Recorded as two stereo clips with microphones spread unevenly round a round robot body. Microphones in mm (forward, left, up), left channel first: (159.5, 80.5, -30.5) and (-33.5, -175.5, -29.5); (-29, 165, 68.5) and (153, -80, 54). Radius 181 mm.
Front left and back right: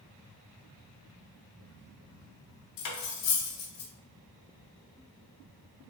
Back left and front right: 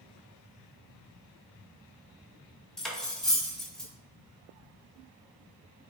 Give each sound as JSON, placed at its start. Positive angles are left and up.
{"t": 2.8, "sound": "cutlery clinking", "azimuth_deg": 35, "distance_m": 0.6}